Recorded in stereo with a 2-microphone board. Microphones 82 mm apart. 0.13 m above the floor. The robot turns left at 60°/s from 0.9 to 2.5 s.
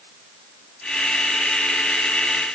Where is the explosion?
I don't hear an explosion.